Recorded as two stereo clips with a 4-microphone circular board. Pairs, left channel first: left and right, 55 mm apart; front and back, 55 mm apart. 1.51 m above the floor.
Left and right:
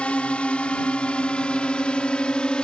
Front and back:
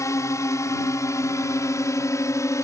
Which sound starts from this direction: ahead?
A drone, at 0.0 s.